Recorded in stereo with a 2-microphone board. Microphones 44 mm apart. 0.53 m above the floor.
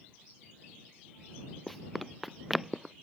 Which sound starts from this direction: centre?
Running footsteps, at 1.7 s.